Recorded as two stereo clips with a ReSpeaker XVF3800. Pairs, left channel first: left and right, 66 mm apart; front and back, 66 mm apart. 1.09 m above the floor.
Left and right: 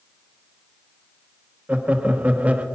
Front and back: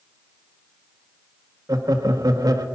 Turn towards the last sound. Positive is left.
turn(degrees=-160)